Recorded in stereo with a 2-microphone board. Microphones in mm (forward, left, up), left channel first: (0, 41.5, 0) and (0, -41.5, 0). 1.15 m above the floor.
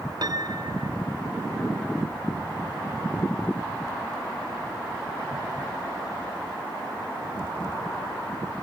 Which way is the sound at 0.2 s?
55° right (ahead or behind).